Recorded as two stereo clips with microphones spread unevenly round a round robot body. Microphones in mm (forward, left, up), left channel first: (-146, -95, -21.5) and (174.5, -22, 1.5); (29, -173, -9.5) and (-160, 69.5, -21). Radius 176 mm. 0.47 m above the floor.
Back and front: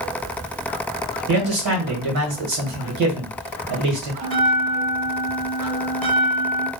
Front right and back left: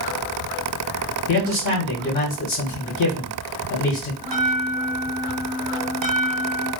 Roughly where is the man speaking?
Ahead.